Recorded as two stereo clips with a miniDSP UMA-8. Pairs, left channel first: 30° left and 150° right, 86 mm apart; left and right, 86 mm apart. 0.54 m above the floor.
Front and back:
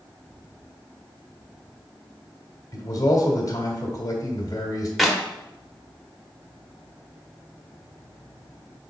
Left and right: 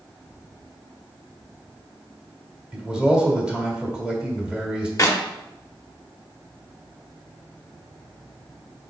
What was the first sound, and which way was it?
A man speaking, 10° right.